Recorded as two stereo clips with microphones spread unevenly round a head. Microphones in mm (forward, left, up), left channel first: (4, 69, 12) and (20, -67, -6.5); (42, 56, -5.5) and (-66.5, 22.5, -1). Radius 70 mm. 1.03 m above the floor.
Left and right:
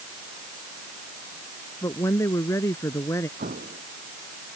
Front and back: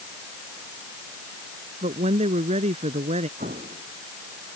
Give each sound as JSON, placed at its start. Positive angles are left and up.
{"t": 1.8, "sound": "a woman speaking", "azimuth_deg": 170}
{"t": 3.4, "sound": "an explosion", "azimuth_deg": -120}